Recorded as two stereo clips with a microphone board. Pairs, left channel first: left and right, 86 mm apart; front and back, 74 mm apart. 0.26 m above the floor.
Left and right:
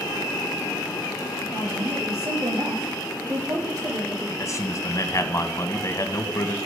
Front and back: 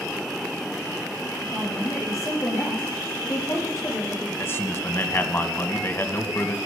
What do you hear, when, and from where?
1.5 s a woman speaking: 50° right, 6 m
4.4 s a man speaking: 50° left, 2 m